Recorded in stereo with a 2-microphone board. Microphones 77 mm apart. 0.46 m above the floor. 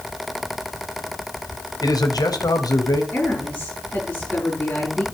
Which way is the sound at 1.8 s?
60° left (ahead or behind).